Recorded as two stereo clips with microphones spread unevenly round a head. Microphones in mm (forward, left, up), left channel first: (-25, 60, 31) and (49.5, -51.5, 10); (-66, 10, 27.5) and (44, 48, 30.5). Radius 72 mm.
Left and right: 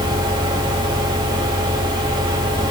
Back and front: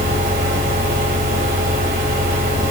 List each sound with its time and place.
0.0 s a fan: straight ahead, 2 m